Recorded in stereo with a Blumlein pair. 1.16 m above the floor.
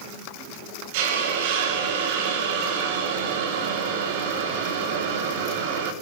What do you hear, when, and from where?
0.9 s a hiss: 50° right, 3.5 m